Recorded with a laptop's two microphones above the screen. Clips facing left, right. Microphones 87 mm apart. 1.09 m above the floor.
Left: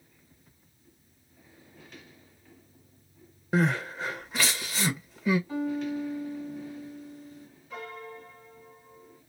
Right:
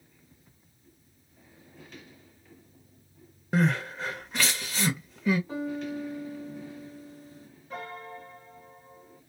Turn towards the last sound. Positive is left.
turn(degrees=-40)  # may be behind; listen again after turning